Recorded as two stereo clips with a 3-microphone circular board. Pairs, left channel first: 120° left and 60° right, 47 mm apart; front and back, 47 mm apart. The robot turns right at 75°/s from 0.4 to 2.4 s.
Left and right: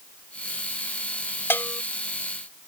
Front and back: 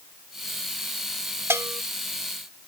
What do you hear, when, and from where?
1.5 s a bell: 155° left; by 1.8 s straight behind